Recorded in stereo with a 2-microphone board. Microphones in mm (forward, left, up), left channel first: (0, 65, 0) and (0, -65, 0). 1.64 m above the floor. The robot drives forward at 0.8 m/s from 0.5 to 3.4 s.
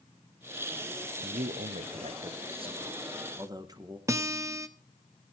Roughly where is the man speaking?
Right.